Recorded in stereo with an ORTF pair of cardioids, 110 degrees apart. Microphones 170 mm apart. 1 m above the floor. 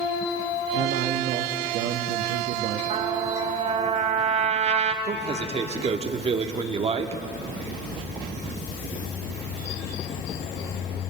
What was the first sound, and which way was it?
A man speaking, 65° right.